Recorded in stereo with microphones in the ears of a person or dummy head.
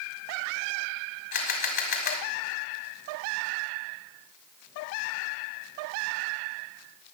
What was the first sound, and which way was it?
A camera shutter, 50° left (ahead or behind).